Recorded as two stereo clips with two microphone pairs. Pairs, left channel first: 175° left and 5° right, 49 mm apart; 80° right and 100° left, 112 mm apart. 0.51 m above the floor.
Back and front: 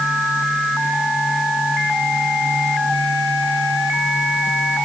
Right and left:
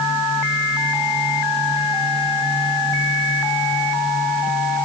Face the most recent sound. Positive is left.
No sound to turn to.